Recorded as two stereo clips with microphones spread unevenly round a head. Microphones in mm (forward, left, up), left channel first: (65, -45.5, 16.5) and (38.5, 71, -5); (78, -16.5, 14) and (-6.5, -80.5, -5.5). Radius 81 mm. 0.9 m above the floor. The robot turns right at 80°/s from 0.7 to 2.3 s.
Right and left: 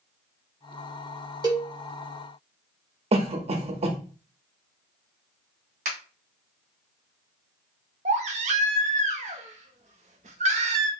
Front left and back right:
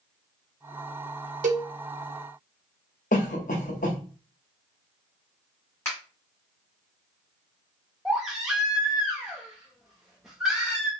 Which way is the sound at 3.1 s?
70° left.